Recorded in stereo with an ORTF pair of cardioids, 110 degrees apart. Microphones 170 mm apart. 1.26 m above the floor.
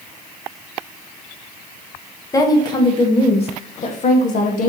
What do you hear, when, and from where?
2.3 s a woman speaking: 20° left, 1.9 m; by 4.7 s 50° left, 2.5 m